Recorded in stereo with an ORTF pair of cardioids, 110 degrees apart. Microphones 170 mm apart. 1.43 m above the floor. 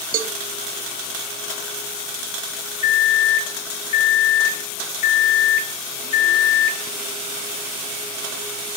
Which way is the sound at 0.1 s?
55° right.